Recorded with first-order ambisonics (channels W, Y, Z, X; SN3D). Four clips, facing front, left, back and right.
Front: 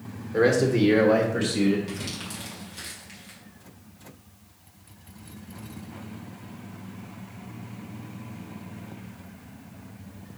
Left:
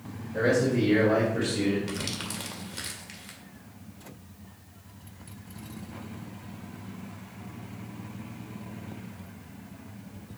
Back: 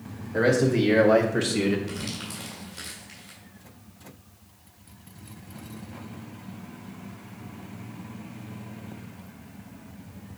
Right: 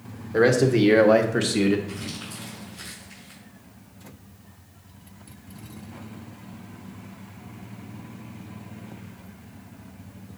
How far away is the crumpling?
About 2.5 m.